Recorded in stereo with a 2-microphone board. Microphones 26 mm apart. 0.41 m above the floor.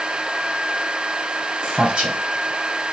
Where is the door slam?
No door slam in this recording.